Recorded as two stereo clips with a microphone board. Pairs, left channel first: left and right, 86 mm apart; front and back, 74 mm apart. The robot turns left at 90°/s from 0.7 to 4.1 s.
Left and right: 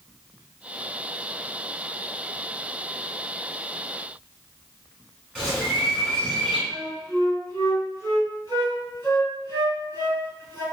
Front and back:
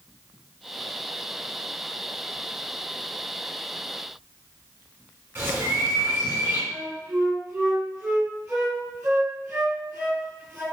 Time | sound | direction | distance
5.3 | a bird | 170° right | 1.7 m
6.7 | a flute | 115° left | 1.8 m